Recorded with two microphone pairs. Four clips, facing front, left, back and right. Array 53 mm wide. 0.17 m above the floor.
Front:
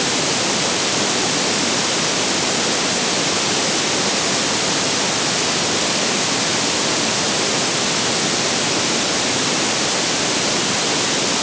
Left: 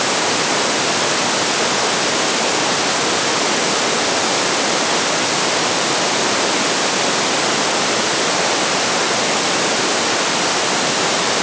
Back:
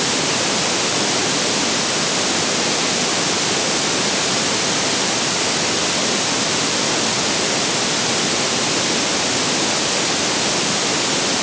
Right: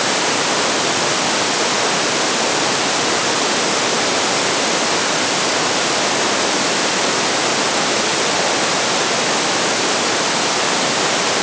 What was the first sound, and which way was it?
Only background noise.